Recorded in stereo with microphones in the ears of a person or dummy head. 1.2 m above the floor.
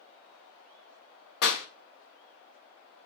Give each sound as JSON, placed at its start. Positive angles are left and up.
{"t": 1.4, "sound": "a clap", "side_deg": 55, "distance_m": 1.0}